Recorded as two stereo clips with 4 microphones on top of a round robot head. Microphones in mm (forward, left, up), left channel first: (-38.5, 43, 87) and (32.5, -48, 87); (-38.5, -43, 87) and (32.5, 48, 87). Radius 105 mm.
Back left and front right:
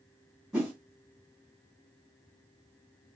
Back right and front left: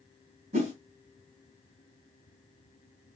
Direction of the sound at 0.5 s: 30° left.